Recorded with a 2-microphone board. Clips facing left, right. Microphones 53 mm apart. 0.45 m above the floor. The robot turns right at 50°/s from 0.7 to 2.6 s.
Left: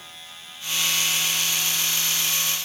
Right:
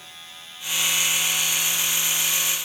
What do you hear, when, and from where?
Only background noise.